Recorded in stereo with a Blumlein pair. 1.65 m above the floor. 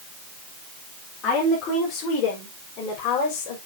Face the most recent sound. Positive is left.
turn(degrees=45)